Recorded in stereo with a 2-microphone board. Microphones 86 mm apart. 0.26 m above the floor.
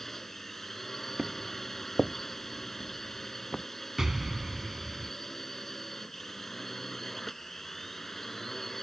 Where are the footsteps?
15° right (ahead or behind); by 3.6 s 5° left (ahead or behind).